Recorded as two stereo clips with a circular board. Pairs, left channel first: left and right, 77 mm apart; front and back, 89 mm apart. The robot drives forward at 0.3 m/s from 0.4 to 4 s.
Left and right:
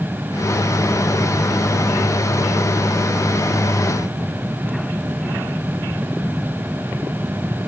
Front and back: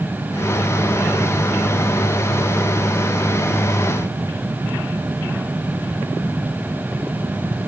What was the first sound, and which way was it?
Only background noise.